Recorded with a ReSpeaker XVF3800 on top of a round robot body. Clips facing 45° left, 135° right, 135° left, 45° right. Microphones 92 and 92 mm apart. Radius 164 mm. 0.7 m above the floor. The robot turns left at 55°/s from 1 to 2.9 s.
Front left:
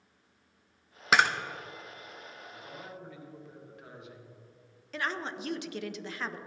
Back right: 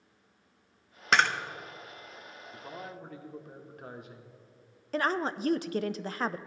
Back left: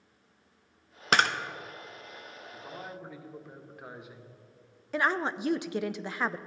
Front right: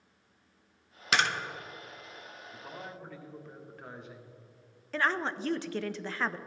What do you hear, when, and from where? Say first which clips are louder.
1.1 s a camera shutter: front left 1 dB, back left 3 dB; 125° left, 0.9 m; by 1.3 s 120° left, 0.9 m
2.5 s a man speaking: back right 4 dB, back left 2 dB; 125° right, 1.5 m; by 4.4 s 145° right, 1.5 m
4.9 s a woman speaking: back right 6 dB, back left 2 dB; 155° right, 0.6 m